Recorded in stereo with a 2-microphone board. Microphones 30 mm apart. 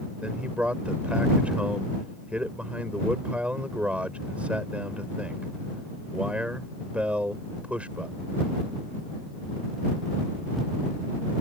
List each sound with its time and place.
0.2 s a man speaking: 40° right (ahead or behind)